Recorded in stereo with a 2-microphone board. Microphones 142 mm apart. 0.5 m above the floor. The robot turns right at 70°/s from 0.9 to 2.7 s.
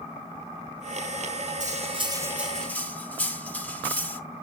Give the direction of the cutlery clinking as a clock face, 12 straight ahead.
2 o'clock.